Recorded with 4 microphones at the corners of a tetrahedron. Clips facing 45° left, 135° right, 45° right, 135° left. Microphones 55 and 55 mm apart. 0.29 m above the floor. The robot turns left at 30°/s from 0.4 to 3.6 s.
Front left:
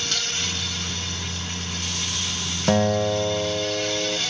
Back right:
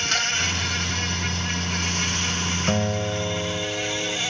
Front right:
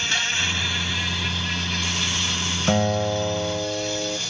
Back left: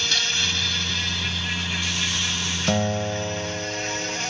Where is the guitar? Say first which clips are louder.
Front left 7 dB, front right 3 dB; 25° left, 0.7 m; by 4.2 s 5° right, 0.7 m.